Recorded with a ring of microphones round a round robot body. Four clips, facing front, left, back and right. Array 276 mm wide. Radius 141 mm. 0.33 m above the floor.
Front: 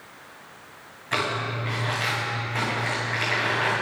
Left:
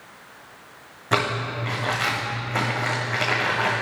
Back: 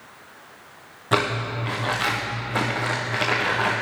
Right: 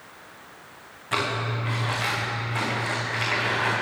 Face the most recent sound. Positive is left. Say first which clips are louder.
# left 3 dB, back 4 dB
turn(degrees=145)